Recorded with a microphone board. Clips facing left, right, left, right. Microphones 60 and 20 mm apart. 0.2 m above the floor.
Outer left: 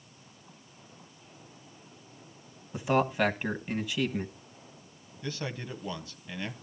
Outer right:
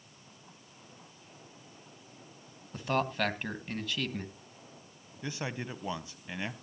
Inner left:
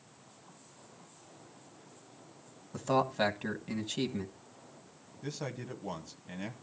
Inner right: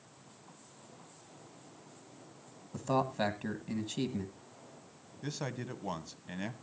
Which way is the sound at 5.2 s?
20° right (ahead or behind).